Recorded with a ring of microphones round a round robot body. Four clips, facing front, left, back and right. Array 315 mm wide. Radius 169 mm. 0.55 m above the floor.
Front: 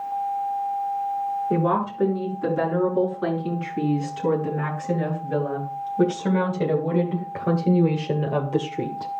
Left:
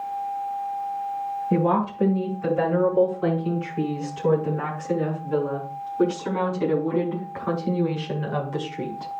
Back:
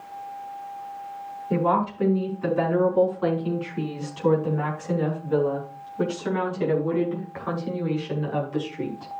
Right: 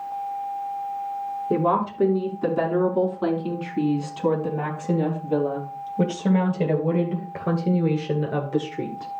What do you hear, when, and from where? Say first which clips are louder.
1.5 s a woman speaking: even, back 3 dB; 70° right, 6.5 m; by 9.1 s 20° right, 1.9 m